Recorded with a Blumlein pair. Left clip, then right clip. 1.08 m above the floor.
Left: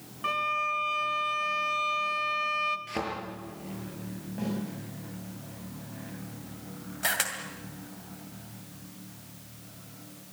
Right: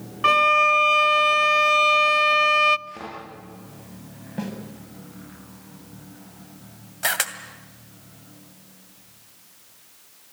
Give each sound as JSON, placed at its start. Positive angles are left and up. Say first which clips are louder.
{"t": 0.2, "sound": "a violin", "louder": "right 12 dB", "azimuth_deg": -60, "distance_m": 0.6}
{"t": 2.9, "sound": "a thud", "louder": "left 4 dB", "azimuth_deg": 30, "distance_m": 7.5}
{"t": 4.4, "sound": "a snare drum", "louder": "right 2 dB", "azimuth_deg": -70, "distance_m": 6.5}
{"t": 7.0, "sound": "a camera shutter", "louder": "right 5 dB", "azimuth_deg": -15, "distance_m": 2.0}